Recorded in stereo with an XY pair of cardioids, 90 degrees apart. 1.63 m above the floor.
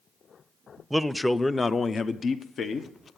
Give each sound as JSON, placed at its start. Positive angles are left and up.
{"t": 0.9, "sound": "a man speaking", "azimuth_deg": -5, "distance_m": 0.7}